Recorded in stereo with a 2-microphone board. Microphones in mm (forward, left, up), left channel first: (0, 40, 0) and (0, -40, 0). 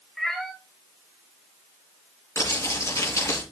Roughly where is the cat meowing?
Centre.